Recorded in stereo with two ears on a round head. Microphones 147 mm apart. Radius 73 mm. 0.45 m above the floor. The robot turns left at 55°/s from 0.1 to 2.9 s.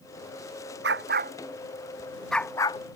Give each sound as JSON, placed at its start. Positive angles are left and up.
{"t": 0.8, "sound": "a dog barking", "side_deg": -80}